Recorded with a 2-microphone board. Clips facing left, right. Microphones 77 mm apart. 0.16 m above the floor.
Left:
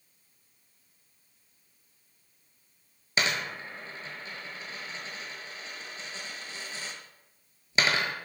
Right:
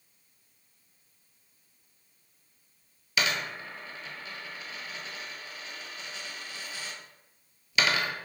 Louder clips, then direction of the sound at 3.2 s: Even; 35° left (ahead or behind).